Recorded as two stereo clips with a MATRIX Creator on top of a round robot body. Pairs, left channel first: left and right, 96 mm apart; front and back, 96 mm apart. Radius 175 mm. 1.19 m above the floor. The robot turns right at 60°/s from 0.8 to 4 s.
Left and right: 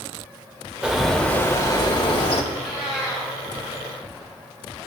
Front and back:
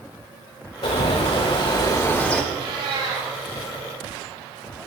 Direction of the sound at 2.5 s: 160° left.